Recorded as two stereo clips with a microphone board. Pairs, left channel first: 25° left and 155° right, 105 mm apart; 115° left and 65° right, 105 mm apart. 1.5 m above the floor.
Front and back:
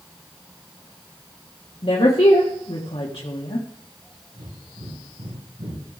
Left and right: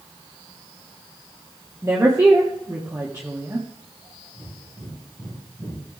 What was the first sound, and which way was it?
A woman speaking, straight ahead.